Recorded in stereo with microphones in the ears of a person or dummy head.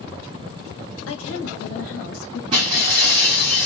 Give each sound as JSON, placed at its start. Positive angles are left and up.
{"t": 1.1, "sound": "a woman speaking", "side_deg": 75, "distance_m": 1.5}
{"t": 2.5, "sound": "breaking glass", "side_deg": -30, "distance_m": 1.3}